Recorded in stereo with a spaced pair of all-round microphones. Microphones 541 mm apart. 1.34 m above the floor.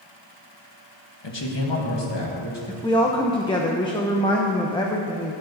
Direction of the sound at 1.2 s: 50° left (ahead or behind).